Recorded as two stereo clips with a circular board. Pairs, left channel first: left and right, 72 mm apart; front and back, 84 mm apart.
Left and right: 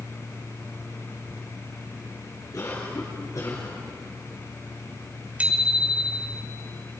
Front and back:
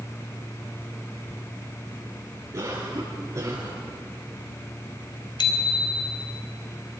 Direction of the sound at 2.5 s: 140° left.